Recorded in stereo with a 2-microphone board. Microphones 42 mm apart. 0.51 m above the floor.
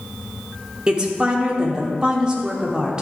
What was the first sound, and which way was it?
A woman speaking, 20° right (ahead or behind).